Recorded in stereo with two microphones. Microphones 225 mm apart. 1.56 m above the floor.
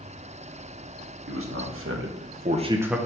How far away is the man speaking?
About 1.9 m.